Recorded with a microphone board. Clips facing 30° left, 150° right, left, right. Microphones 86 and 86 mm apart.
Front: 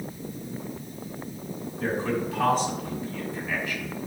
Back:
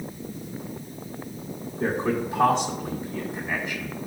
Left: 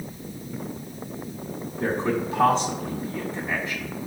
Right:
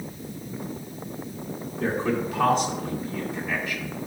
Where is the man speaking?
145° left, 1.6 m.